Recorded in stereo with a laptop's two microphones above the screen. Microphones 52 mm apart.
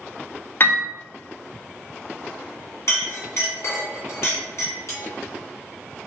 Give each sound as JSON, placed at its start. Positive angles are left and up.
{"t": 0.6, "sound": "a piano", "side_deg": 40, "distance_m": 0.5}
{"t": 2.9, "sound": "a clink", "side_deg": 60, "distance_m": 1.9}